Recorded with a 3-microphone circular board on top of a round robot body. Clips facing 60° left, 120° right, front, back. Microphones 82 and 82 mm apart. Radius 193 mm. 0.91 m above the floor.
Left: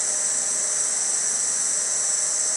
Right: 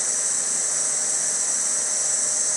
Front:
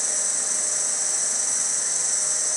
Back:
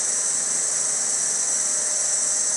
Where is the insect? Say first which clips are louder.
Even, even; 40° left, 1.8 m.